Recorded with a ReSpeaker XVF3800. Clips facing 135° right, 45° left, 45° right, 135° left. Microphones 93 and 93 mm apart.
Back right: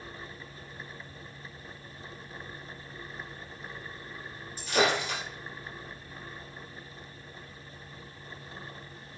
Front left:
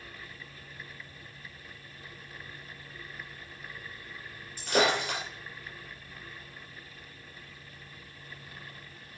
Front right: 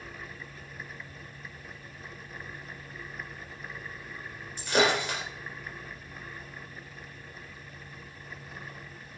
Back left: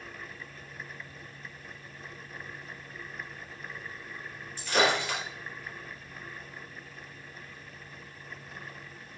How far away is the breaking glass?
About 3 m.